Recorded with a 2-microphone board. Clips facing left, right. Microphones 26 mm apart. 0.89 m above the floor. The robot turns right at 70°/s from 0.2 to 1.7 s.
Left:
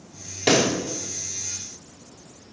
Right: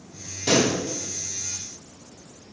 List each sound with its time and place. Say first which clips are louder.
0.5 s a pop: left 1 dB; 70° left (ahead or behind), 1.2 m; by 0.7 s 50° left (ahead or behind), 1.2 m